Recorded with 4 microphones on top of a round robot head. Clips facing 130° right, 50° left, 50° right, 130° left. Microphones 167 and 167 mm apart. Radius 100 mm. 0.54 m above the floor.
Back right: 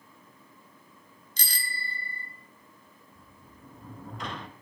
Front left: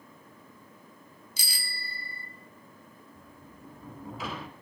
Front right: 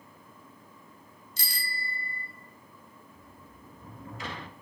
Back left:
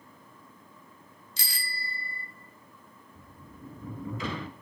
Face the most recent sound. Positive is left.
turn(degrees=135)